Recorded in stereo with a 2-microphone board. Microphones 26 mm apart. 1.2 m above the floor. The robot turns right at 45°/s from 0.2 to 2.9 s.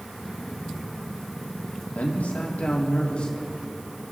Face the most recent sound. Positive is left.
turn(degrees=130)